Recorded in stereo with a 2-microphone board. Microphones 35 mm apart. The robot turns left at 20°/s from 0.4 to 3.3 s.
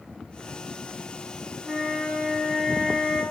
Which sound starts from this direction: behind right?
A flute, at 1.6 s.